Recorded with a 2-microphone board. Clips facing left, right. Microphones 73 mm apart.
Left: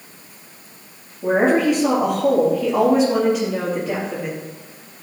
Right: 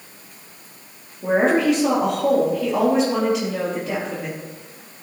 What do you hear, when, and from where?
1.2 s a woman speaking: 5° right (ahead or behind), 5 m